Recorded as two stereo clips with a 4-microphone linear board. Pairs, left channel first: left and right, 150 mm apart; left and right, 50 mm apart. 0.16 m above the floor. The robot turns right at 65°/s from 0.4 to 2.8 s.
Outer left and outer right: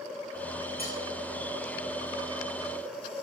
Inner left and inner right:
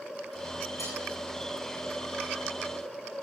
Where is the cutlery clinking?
85° left, 7.5 m; by 1.0 s 80° left, 7.5 m.